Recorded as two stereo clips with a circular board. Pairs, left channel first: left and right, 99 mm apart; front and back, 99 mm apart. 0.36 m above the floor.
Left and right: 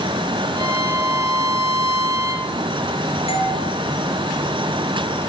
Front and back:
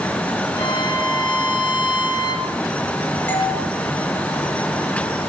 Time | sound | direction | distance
0.6 | a violin | 35° right | 4.5 m
3.3 | a doorbell | 70° left | 8.5 m